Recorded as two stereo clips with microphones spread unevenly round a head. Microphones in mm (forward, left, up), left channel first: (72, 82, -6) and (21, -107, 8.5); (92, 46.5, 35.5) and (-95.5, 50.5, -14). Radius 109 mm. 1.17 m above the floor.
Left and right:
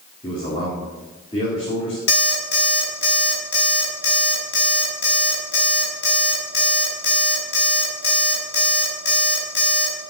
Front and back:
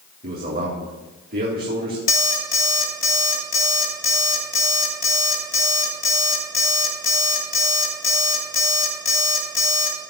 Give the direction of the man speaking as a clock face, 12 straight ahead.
7 o'clock.